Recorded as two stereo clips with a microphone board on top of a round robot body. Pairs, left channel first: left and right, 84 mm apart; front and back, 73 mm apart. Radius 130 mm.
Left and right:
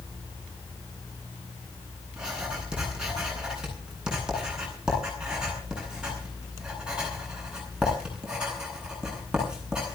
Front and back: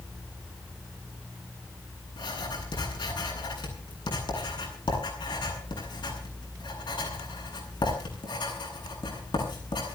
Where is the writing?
10° right, 9.5 m.